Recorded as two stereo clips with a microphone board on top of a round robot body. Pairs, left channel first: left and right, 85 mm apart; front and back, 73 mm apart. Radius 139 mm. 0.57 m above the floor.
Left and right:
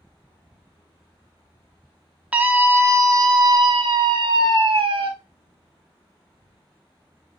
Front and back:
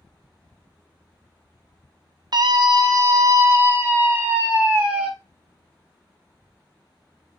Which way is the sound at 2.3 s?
165° right.